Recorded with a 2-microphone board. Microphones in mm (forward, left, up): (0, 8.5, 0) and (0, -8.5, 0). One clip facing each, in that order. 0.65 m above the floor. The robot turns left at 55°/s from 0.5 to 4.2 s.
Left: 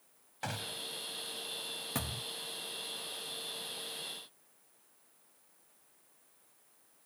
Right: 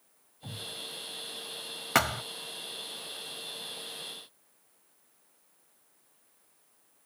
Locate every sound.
0.4 s a gunshot: 60° left (ahead or behind); by 0.8 s 75° left (ahead or behind)
1.9 s a thud: 75° right (ahead or behind); by 2.2 s 85° right